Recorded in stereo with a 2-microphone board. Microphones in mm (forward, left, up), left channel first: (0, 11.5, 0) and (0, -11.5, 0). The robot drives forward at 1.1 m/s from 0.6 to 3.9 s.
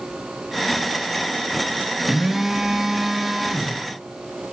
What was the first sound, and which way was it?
A phone buzzing, 10° right (ahead or behind).